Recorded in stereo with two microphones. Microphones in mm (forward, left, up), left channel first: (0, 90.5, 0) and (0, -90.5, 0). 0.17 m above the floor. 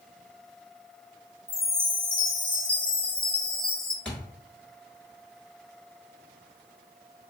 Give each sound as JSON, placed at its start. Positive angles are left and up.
{"t": 1.5, "sound": "a chime", "side_deg": 50, "distance_m": 0.5}
{"t": 4.0, "sound": "a thud", "side_deg": 5, "distance_m": 1.2}